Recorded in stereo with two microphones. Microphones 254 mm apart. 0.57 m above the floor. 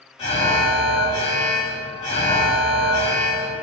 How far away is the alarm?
About 1.7 m.